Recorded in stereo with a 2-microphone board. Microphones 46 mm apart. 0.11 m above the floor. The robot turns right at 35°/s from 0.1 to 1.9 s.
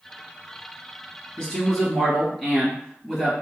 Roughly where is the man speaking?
Centre.